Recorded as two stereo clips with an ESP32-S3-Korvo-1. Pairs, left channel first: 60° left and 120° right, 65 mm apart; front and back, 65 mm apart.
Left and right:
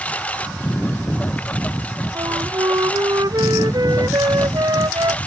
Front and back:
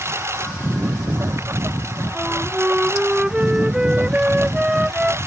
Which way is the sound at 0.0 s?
130° left.